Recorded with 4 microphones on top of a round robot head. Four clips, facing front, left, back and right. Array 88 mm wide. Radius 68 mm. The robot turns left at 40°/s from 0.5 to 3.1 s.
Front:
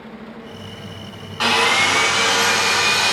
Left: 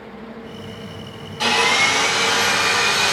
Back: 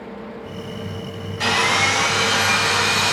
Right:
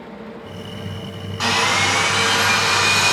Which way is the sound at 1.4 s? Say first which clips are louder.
Left 1 dB, front 2 dB; 20° right.